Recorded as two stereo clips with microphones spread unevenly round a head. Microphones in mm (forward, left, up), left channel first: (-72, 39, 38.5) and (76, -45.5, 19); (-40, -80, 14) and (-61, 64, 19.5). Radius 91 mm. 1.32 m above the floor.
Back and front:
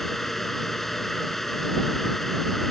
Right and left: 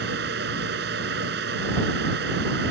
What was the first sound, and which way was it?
A fan, 65° left.